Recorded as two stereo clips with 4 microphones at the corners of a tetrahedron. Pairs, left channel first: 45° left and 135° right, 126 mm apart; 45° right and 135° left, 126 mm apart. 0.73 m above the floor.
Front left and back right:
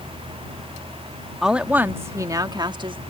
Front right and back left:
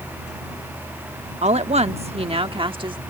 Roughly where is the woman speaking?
Behind left.